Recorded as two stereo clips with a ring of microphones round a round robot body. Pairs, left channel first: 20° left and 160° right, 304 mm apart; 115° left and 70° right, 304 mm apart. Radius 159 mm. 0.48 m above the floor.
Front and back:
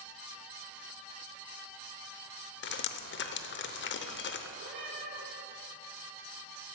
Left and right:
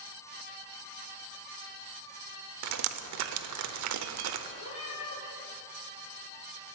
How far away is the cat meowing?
About 4 m.